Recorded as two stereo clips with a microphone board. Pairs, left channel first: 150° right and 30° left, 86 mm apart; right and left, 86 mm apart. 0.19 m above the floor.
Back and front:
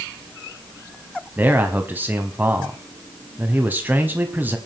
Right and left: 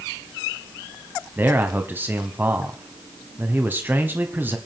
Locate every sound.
1.4 s a man speaking: 65° left, 1.1 m